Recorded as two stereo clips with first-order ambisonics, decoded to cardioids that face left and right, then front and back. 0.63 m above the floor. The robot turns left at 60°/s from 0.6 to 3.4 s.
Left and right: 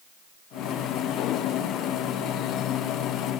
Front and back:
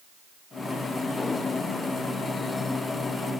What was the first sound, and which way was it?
Only background noise.